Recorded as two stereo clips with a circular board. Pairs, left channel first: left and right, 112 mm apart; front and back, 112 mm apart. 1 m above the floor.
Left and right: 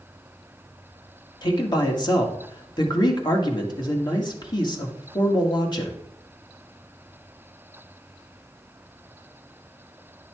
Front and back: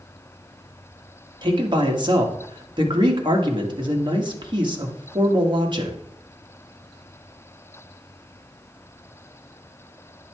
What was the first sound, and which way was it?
A man speaking, 135° left.